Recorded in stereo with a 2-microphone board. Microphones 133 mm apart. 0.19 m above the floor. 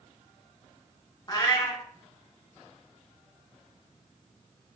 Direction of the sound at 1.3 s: 30° left (ahead or behind).